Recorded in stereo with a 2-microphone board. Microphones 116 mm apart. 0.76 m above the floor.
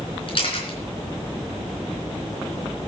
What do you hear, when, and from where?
0.3 s a camera shutter: 55° left (ahead or behind), 3.5 m